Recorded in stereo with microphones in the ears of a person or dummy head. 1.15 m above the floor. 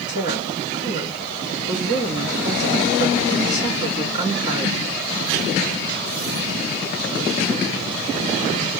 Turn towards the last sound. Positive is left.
turn(degrees=-35)  # may be behind; listen again after turning